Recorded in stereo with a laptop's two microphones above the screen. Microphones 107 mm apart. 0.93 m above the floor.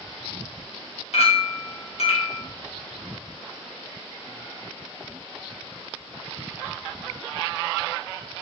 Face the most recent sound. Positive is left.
turn(degrees=70)  # may be behind; listen again after turning